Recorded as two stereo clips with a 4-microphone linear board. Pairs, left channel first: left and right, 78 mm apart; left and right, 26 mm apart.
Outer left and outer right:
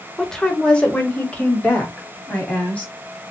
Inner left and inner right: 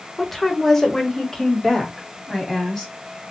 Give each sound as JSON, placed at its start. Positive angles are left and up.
{"t": 0.2, "sound": "a woman speaking", "side_deg": 5, "distance_m": 1.0}